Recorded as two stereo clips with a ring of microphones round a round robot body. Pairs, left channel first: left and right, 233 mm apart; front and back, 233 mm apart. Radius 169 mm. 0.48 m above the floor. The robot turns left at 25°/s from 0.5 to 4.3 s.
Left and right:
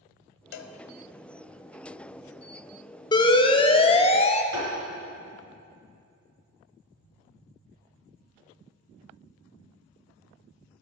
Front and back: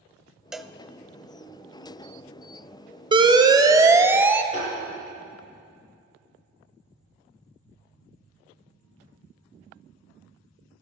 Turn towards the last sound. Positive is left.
turn(degrees=-105)